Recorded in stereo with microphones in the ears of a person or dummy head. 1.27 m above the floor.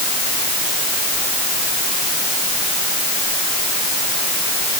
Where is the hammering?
I don't hear hammering.